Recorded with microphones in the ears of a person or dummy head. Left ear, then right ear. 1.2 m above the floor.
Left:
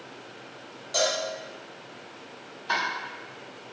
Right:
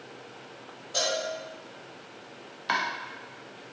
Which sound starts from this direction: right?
Chopping, at 2.7 s.